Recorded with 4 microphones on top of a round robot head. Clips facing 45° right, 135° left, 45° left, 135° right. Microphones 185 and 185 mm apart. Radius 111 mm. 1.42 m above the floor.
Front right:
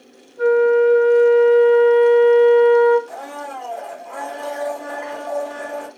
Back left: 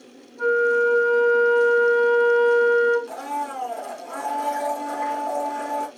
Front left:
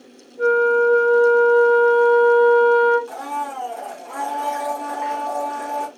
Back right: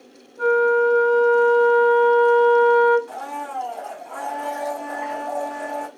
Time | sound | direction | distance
0.4 | a flute | 125° right | 1.7 m
3.1 | a blender | 90° left | 0.9 m